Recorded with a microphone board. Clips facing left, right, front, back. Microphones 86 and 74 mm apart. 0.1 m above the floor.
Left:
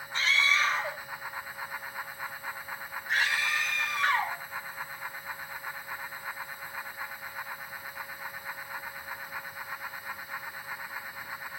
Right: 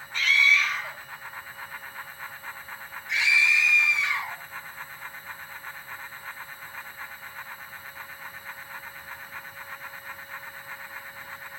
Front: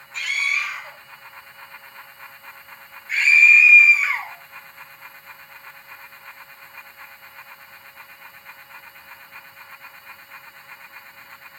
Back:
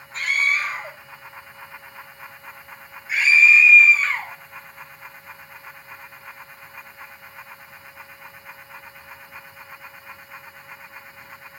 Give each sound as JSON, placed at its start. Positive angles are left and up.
{"t": 0.1, "sound": "a scream", "azimuth_deg": 140, "distance_m": 3.0}